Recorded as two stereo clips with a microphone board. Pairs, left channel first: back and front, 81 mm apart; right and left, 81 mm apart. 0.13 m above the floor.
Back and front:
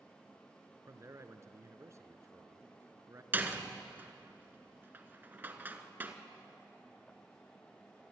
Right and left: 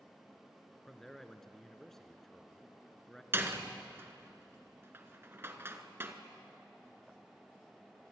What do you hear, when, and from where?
0.9 s a man speaking: 5° right, 1.3 m
3.3 s a door slam: 50° left, 1.4 m